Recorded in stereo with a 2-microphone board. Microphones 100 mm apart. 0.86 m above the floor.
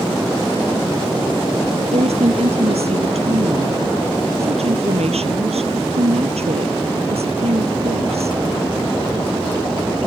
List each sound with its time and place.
1.9 s a woman speaking: 80° right